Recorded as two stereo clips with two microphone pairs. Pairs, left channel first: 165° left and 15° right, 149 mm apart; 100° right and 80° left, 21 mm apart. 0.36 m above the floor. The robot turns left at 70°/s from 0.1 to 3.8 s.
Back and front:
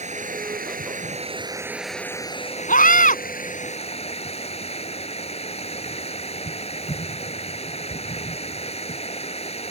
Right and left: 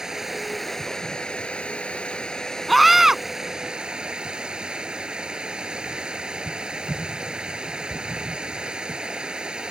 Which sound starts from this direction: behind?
A scream, at 2.7 s.